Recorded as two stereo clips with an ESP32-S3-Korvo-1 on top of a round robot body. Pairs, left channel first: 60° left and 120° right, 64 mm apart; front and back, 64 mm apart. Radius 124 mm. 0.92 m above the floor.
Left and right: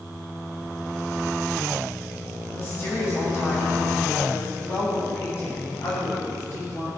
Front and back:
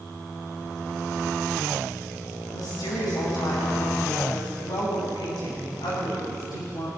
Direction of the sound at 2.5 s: 5° left.